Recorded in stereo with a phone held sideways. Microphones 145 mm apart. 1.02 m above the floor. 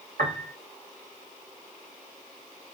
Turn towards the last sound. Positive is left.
turn(degrees=-75)  # may be behind; listen again after turning